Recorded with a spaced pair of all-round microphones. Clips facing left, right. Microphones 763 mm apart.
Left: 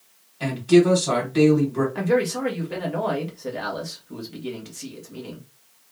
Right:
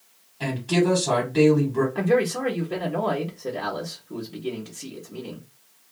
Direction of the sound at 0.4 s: 30° right (ahead or behind).